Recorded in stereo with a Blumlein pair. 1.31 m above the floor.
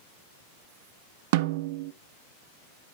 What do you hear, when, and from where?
1.3 s a snare drum: 50° right, 0.6 m